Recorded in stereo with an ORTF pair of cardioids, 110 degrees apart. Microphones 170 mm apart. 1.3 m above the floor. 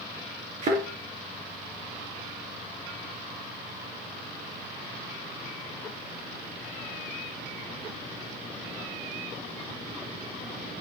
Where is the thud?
45° right, 4.5 m.